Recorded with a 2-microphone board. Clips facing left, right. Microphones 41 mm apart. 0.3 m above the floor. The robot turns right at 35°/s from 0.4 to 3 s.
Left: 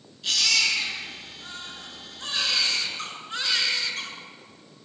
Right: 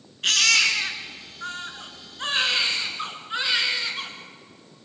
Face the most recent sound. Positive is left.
turn(degrees=-15)